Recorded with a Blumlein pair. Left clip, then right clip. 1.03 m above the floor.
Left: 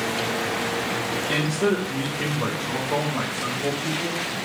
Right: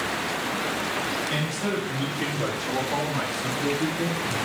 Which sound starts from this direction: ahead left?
A man speaking, at 1.3 s.